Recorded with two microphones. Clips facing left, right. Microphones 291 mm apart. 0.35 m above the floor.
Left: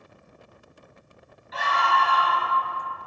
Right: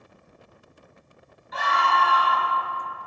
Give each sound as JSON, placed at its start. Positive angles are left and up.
{"t": 1.5, "sound": "a scream", "side_deg": -55, "distance_m": 1.9}